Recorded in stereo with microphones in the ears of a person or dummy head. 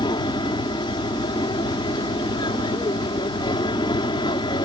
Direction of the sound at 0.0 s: 30° left (ahead or behind).